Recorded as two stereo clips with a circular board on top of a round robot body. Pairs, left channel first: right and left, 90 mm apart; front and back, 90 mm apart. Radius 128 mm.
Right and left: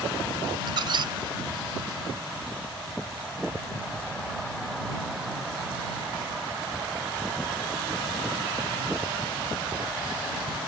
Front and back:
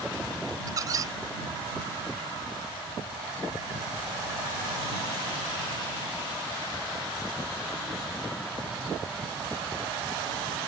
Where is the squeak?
130° left.